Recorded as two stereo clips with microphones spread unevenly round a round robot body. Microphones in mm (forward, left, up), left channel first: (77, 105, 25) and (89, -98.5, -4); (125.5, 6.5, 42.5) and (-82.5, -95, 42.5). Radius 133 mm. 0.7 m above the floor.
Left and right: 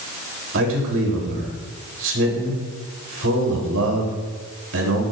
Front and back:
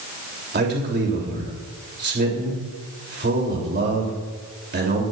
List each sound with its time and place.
0.5 s a man speaking: 110° right, 3.5 m